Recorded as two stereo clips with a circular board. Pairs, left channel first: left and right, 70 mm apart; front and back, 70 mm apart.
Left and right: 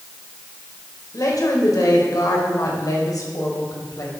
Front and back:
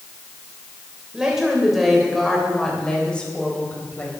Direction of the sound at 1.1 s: 105° left.